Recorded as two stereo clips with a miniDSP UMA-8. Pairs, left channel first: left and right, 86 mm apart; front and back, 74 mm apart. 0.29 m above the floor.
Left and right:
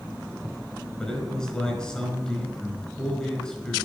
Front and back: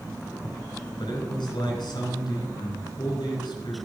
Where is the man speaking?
10° left, 4.5 m.